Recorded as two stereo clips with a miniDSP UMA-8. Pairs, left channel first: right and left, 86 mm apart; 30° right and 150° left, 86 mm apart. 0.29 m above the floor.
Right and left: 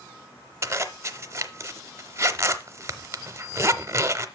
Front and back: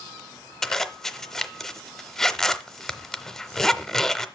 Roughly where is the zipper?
Ahead left.